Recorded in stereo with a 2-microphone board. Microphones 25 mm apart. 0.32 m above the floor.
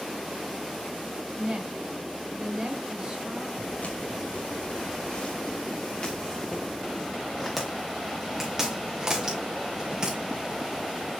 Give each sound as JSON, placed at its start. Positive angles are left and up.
{"t": 1.4, "sound": "a woman speaking", "side_deg": -30, "distance_m": 4.0}
{"t": 3.6, "sound": "footsteps", "side_deg": 75, "distance_m": 3.0}